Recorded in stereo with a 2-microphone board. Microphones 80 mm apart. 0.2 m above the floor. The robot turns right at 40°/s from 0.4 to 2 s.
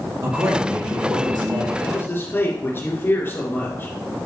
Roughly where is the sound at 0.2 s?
Behind right.